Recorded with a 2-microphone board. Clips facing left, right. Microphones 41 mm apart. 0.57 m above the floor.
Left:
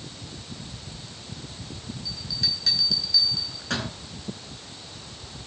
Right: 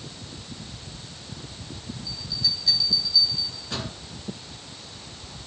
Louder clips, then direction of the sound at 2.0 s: Right 1 dB; 75° left (ahead or behind).